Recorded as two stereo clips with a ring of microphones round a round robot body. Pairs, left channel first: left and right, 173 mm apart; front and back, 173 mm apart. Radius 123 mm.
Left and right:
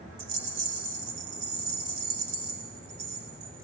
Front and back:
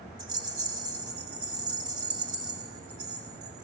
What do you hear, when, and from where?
0.2 s a rattle: 115° right, 1.8 m